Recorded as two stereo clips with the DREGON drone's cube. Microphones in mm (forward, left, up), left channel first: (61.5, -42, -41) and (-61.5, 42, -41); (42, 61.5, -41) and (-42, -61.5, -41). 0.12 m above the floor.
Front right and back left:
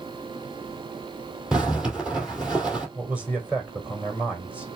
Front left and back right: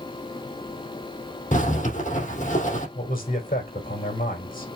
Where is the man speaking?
65° left, 4 m.